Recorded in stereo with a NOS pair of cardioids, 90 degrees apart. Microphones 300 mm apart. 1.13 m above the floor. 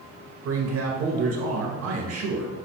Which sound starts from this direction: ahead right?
A man speaking, at 0.5 s.